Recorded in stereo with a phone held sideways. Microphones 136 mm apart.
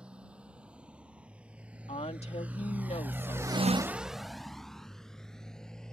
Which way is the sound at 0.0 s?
10° right (ahead or behind).